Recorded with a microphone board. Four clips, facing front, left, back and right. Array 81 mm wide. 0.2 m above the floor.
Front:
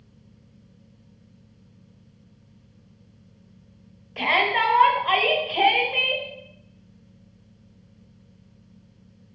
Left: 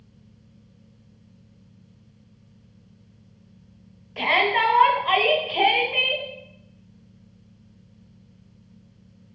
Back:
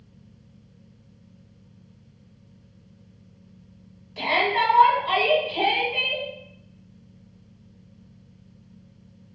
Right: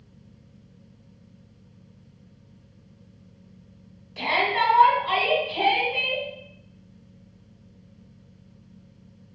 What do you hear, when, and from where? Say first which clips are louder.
4.2 s a shout: left 2 dB, front 1 dB; 45° left, 1.4 m